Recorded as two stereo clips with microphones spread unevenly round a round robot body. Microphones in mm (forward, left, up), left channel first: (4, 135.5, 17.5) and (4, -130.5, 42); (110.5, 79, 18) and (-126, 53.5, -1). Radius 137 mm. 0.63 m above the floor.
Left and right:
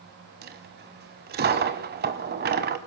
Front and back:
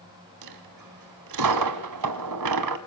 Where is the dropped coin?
145° right, 1.6 m.